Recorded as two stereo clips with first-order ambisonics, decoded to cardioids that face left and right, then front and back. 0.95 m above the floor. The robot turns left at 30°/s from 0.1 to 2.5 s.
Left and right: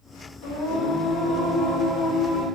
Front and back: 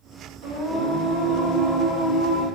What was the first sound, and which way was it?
Singing, 130° left.